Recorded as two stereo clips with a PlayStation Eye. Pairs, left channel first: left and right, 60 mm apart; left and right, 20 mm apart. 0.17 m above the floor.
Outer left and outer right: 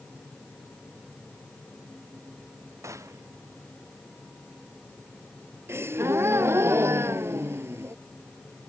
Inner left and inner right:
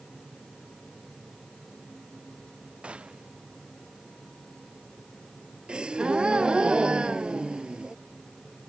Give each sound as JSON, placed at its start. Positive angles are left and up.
{"t": 2.8, "sound": "a gunshot", "side_deg": -55}
{"t": 5.7, "sound": "a gasp", "side_deg": -45}